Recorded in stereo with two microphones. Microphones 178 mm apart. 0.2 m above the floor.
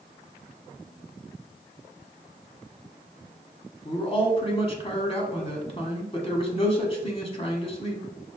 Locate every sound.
3.9 s a man speaking: 35° left (ahead or behind), 1.1 m